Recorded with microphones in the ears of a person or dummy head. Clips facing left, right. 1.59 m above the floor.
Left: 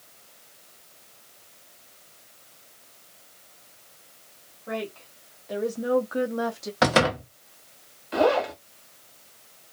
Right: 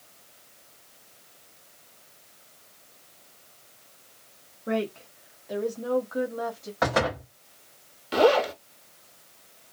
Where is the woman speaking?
45° right (ahead or behind), 0.7 m; by 6.7 s 60° left (ahead or behind), 0.8 m.